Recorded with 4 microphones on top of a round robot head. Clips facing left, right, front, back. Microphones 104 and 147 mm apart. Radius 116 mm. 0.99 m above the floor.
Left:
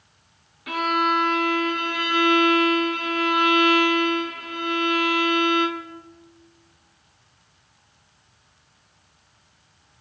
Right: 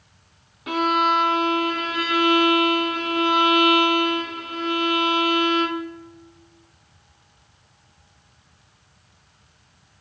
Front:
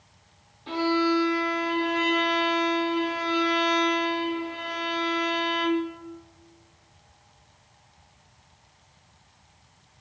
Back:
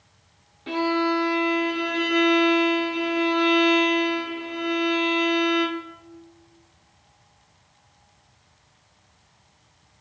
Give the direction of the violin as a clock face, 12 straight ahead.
5 o'clock.